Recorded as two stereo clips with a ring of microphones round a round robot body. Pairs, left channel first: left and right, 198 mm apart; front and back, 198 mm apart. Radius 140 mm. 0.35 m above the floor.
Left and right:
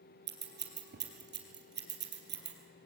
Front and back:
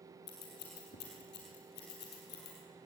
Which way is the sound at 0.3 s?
55° right.